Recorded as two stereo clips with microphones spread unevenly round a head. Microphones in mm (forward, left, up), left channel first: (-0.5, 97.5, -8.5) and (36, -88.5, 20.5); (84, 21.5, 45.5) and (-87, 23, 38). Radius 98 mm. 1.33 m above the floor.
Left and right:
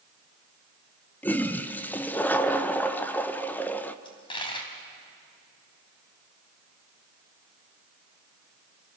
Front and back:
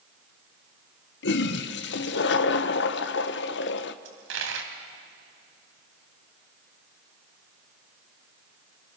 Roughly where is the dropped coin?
Behind.